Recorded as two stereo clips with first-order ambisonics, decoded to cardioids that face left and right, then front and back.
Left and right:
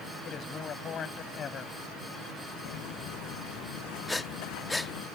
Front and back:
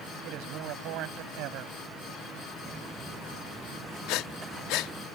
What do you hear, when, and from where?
0.2 s a man speaking: 150° left
2.6 s footsteps: 105° left; by 5.1 s 100° left
4.1 s breathing: 10° left